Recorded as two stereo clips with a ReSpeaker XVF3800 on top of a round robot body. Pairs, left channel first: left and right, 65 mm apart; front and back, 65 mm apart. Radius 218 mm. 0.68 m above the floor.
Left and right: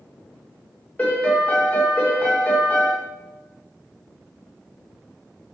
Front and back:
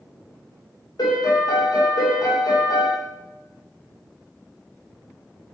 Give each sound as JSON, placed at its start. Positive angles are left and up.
{"t": 1.0, "sound": "a piano", "azimuth_deg": 20, "distance_m": 1.6}